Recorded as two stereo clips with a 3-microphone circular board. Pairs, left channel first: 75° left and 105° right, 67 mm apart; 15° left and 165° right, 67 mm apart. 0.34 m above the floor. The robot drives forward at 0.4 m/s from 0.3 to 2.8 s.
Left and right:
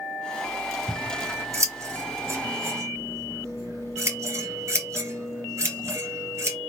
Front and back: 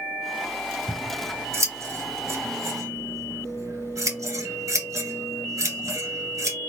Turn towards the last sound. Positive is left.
turn(degrees=-140)